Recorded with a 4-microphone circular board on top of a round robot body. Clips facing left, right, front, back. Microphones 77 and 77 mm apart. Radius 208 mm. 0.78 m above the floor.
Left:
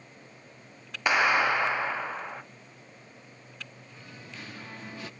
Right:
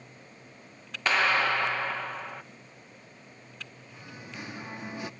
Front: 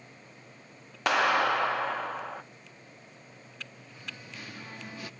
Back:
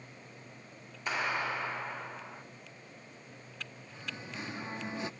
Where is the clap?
15° left, 1.5 m.